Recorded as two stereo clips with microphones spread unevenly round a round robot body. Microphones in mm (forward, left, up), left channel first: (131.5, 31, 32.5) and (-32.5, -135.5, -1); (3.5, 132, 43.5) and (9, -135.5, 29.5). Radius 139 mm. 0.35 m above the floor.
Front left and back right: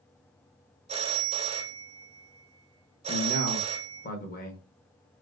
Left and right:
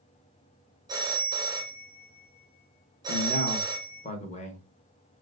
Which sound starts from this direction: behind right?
A phone ringing, at 0.9 s.